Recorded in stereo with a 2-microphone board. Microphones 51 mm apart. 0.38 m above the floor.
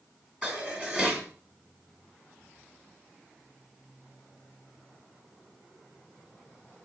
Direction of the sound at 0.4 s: 20° right (ahead or behind).